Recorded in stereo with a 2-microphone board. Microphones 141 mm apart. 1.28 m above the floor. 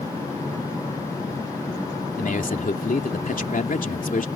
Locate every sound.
2.2 s a man speaking: 70° left (ahead or behind)